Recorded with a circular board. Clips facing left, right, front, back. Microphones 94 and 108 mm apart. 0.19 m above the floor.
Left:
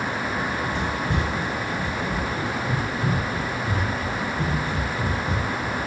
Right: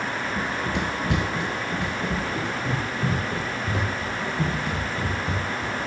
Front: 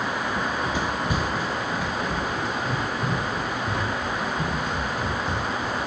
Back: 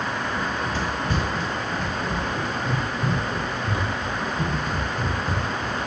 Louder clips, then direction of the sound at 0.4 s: Left 1 dB, front 1 dB; 70° right.